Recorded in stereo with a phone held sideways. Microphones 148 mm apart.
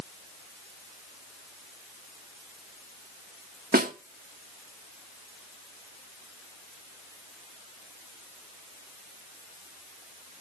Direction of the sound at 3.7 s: 75° right (ahead or behind).